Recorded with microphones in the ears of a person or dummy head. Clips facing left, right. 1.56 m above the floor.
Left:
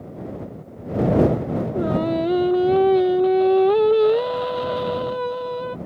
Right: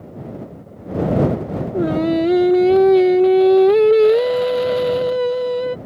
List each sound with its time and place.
1.7 s singing: 25° right (ahead or behind)